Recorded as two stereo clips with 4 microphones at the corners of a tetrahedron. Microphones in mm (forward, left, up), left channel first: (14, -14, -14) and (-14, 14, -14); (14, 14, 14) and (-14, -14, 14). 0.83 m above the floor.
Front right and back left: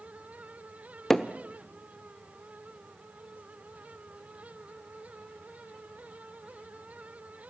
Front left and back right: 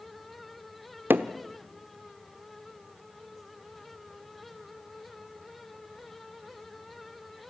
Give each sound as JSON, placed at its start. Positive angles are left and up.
{"t": 1.1, "sound": "hammering", "azimuth_deg": -125, "distance_m": 0.9}